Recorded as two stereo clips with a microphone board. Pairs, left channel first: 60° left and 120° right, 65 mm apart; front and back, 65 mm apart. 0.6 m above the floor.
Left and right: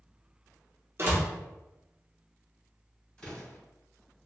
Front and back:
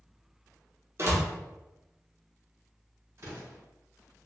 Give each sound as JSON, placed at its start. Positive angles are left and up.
{"t": 1.0, "sound": "a door slam", "azimuth_deg": -155, "distance_m": 1.0}
{"t": 3.2, "sound": "an explosion", "azimuth_deg": 135, "distance_m": 1.8}